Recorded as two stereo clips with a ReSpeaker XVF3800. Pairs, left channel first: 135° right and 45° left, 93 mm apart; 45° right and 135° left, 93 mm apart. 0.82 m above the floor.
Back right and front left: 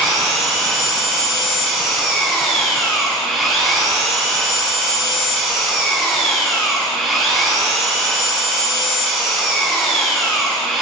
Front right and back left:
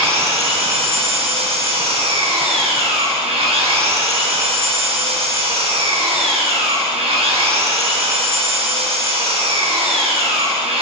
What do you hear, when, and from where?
0.0 s an engine running: 135° left, 6 m